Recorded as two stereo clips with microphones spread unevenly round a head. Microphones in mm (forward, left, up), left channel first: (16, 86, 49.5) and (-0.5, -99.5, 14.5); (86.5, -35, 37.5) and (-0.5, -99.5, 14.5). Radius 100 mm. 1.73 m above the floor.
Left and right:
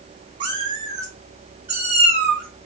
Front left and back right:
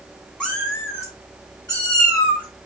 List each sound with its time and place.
0.4 s a cat meowing: 25° right, 1.6 m; by 2.4 s 5° right, 3.5 m